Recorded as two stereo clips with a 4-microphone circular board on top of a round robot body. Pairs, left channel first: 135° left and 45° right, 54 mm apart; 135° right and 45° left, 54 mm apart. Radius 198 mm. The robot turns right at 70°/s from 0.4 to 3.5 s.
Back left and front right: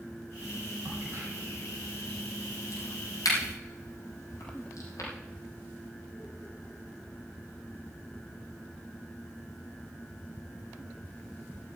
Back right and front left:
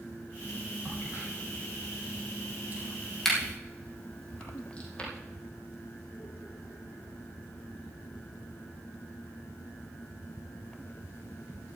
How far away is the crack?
About 4.5 m.